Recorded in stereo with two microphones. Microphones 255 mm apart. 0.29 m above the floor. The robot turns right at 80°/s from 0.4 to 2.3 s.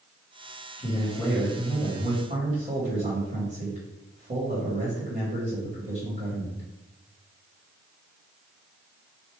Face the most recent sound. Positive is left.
turn(degrees=-30)  # may be behind; listen again after turning